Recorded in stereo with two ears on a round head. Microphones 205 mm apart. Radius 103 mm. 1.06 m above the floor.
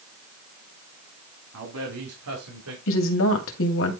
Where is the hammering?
No hammering in this recording.